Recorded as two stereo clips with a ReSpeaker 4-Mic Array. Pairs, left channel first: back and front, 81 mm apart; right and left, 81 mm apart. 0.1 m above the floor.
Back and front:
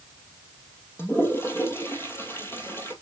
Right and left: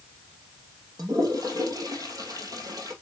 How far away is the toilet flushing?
About 2.5 m.